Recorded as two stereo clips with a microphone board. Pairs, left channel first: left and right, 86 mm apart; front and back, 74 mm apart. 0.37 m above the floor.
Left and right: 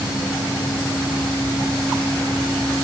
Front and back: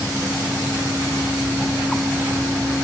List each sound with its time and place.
Only background noise.